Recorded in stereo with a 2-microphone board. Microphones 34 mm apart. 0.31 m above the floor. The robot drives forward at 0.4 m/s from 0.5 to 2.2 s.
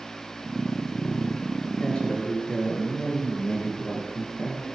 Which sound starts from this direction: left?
A man speaking, at 1.8 s.